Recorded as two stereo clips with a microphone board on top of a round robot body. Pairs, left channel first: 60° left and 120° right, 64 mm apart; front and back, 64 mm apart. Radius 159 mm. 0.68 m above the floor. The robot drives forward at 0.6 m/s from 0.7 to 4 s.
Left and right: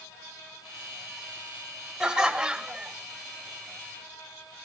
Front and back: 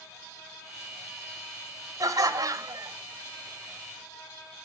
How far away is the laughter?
About 2.5 m.